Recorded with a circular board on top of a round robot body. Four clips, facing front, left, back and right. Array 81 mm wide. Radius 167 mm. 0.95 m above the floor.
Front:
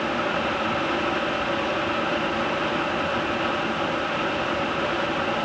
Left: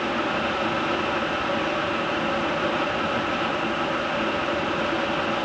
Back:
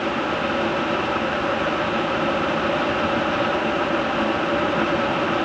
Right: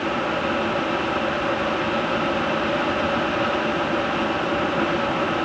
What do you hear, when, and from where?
Only background noise.